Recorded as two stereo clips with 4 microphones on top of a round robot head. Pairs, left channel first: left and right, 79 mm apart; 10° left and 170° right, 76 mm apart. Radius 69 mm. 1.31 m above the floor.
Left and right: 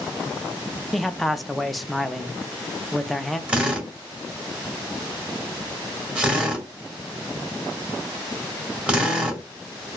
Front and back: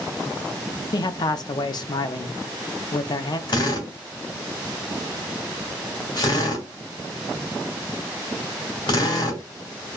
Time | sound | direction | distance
0.9 | a man speaking | straight ahead | 0.5 m
3.5 | a drill | 15° right | 2 m